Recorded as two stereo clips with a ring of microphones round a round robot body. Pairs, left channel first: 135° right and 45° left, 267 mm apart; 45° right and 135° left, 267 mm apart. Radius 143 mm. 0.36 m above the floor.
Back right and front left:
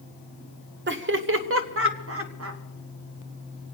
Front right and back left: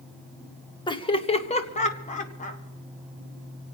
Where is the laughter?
20° left, 1.1 m; by 2.6 s 15° left, 1.9 m.